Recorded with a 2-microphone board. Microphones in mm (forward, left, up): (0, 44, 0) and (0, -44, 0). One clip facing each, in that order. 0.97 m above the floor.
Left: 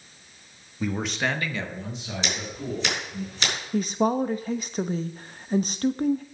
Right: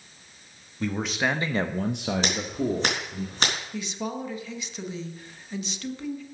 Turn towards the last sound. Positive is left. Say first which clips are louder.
# left 9 dB
turn(degrees=45)  # may be behind; listen again after turning